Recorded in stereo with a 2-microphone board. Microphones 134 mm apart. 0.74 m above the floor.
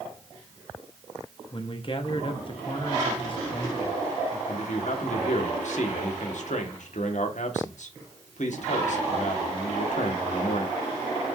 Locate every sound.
1.5 s a man speaking: 40° left (ahead or behind), 1.2 m
4.5 s a man speaking: 65° left (ahead or behind), 1.6 m